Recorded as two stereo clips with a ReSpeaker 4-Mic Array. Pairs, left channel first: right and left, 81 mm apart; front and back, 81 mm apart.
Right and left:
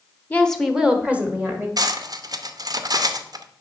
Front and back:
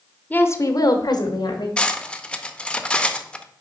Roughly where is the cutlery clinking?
Left.